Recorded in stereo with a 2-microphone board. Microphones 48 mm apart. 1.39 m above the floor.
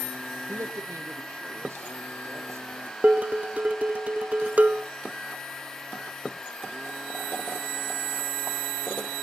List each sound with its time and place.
0.5 s a man speaking: 85° right, 1.1 m; by 2.9 s 65° right (ahead or behind), 3.5 m
3.0 s dishes clattering: 35° right (ahead or behind), 1.0 m